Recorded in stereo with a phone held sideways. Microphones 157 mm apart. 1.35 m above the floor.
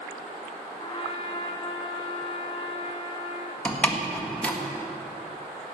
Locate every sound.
0.8 s a trumpet: 30° left (ahead or behind), 1.1 m
3.6 s a door slam: 10° left (ahead or behind), 1.5 m